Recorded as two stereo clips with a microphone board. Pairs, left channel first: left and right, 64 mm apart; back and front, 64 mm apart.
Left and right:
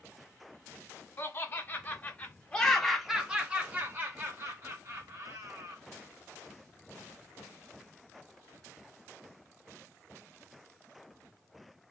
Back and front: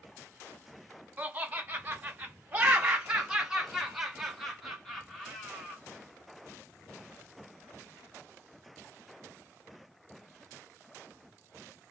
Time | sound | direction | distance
1.2 | laughter | 60° left | 1.2 m